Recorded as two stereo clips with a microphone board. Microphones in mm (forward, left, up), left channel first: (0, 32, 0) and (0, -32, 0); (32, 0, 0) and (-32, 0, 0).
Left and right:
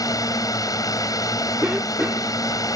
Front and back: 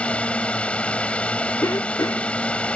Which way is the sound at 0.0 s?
70° left.